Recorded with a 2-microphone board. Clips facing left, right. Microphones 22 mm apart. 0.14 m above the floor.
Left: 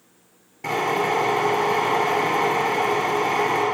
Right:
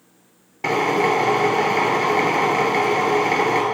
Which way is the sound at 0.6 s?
35° right (ahead or behind).